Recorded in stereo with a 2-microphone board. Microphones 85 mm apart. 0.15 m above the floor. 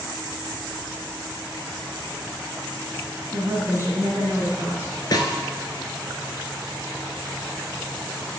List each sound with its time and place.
3.3 s a woman speaking: 30° right (ahead or behind), 2.0 m
5.1 s a snare drum: 50° left (ahead or behind), 0.9 m